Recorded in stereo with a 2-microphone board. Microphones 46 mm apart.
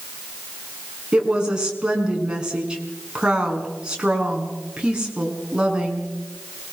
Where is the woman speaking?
20° right (ahead or behind), 5.5 m.